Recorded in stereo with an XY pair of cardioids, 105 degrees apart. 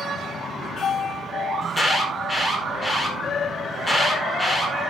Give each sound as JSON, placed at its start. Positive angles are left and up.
{"t": 1.6, "sound": "an alarm", "azimuth_deg": 20, "distance_m": 4.0}